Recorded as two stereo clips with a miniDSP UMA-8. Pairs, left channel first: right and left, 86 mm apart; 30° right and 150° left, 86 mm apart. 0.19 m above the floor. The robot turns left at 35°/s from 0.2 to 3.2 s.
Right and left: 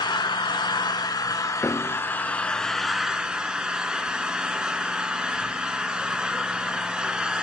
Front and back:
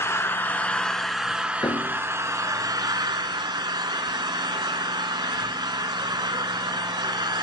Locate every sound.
0.0 s an engine running: 85° right, 0.9 m; by 7.4 s 170° left, 0.9 m
1.6 s a piano: 25° right, 1.0 m; by 2.0 s 40° right, 1.0 m